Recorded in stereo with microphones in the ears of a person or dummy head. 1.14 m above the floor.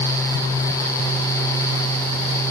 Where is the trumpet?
No trumpet in this recording.